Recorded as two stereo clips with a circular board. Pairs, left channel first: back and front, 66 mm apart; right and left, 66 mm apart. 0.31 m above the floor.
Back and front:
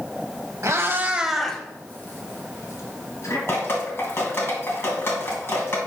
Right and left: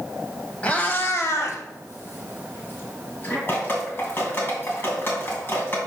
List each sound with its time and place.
0.6 s a cat meowing: 25° right, 1.0 m; by 3.4 s 145° right, 2.5 m
3.5 s dripping: 135° right, 2.5 m